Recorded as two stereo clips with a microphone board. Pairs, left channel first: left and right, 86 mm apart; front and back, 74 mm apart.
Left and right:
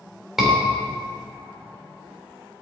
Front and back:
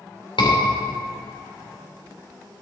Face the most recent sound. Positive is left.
turn(degrees=-5)